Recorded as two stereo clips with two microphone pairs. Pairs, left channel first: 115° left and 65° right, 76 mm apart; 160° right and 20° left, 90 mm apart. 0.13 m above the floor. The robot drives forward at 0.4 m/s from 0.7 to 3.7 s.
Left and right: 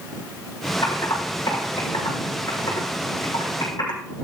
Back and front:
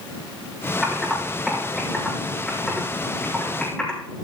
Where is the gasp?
No gasp in this recording.